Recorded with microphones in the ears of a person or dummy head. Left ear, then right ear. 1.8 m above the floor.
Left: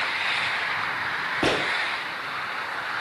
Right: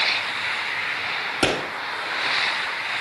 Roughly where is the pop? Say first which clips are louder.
Right 2 dB; right.